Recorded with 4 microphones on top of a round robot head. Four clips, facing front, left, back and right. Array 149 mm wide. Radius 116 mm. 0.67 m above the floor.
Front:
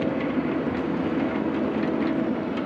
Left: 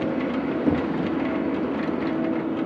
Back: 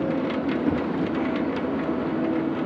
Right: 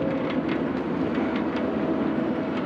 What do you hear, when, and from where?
0.7 s knocking: 110° left